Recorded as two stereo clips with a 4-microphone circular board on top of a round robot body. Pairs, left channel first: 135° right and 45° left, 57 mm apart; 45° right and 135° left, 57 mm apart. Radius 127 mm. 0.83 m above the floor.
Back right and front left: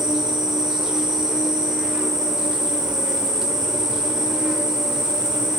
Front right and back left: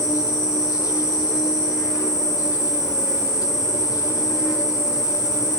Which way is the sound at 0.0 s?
35° right.